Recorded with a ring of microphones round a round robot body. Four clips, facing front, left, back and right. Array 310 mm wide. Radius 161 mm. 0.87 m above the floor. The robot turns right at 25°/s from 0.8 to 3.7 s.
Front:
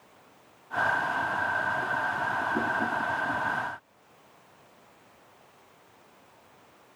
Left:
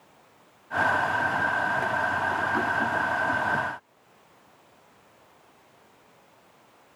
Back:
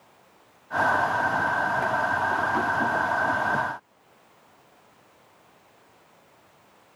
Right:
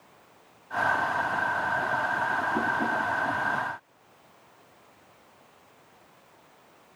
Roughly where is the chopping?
No chopping in this recording.